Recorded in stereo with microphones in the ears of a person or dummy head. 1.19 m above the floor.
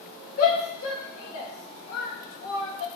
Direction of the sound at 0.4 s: 75° left (ahead or behind).